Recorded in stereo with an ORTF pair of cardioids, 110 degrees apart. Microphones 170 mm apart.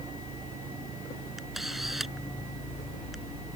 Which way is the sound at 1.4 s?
Straight ahead.